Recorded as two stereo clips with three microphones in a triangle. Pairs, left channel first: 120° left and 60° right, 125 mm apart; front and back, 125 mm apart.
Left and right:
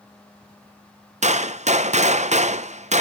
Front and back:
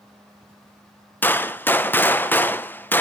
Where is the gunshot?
75° right, 0.6 m.